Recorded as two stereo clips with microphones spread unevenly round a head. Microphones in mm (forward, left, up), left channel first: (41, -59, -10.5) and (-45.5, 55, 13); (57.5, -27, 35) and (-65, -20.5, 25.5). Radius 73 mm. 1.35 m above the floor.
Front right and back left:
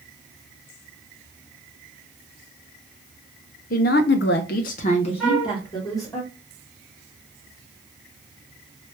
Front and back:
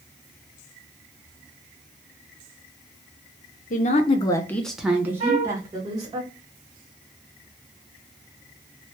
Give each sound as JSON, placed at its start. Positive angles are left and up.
{"t": 3.7, "sound": "a woman speaking", "azimuth_deg": -15, "distance_m": 0.6}
{"t": 5.2, "sound": "a flute", "azimuth_deg": -140, "distance_m": 0.8}